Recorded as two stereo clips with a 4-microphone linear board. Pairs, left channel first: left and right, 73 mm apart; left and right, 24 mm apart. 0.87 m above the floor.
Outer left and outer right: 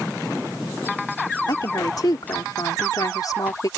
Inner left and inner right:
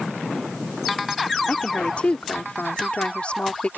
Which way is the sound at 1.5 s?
65° left (ahead or behind).